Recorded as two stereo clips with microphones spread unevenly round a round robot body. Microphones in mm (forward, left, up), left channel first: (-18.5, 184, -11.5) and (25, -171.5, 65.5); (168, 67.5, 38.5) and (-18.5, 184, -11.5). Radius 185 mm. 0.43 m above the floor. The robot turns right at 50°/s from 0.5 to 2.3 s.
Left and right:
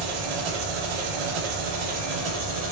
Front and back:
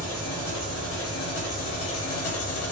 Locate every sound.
0.0 s an engine running: 115° right, 1.1 m; by 2.7 s 25° right, 1.1 m